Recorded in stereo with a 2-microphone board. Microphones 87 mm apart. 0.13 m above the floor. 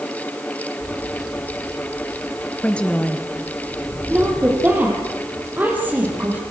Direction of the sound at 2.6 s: 10° left (ahead or behind).